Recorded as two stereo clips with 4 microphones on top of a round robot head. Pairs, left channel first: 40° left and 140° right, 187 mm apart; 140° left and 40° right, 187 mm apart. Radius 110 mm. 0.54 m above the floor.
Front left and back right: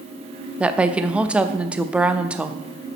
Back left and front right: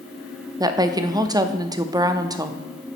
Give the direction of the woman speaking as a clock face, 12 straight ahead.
2 o'clock.